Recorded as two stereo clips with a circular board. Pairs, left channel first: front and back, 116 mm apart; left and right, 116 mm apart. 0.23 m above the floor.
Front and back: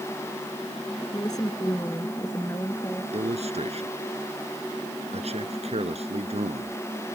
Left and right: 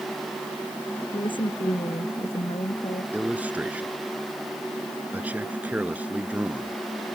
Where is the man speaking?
165° right.